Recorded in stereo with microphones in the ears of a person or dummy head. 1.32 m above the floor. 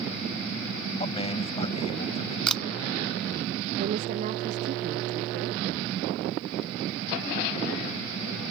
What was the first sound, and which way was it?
A man speaking, 40° left (ahead or behind).